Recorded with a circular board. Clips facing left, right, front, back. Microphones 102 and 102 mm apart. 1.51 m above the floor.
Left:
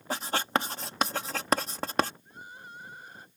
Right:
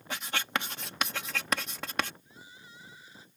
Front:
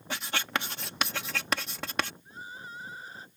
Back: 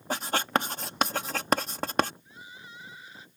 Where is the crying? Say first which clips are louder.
Left 6 dB, front 4 dB; 50° left.